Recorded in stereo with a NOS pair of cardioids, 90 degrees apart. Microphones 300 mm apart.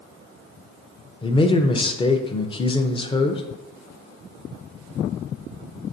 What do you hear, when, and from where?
1.2 s a man speaking: 15° left, 0.5 m